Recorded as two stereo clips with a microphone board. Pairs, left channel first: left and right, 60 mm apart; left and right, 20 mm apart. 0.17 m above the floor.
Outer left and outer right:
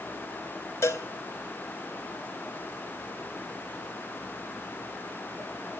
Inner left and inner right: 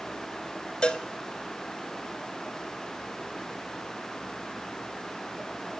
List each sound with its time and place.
0.8 s a cowbell: 50° left (ahead or behind), 0.5 m